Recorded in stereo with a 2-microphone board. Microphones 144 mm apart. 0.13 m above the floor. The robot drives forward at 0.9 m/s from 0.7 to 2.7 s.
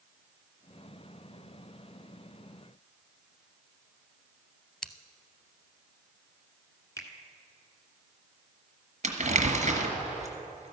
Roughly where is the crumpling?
Right.